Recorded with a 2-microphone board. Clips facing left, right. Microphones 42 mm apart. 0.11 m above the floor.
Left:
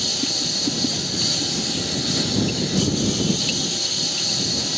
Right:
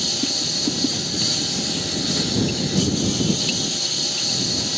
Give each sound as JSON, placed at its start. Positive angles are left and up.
{"t": 0.0, "sound": "a lawn mower", "side_deg": 0}